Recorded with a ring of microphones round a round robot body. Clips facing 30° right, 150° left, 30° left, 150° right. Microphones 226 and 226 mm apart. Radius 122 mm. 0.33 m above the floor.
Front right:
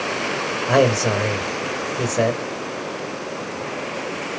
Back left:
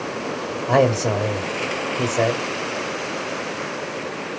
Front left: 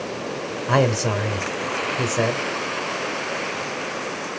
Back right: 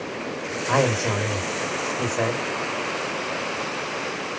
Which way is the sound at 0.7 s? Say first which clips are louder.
Front right 1 dB, front left 2 dB; 35° left.